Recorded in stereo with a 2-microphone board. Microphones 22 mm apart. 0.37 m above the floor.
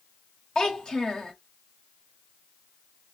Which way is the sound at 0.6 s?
40° left (ahead or behind).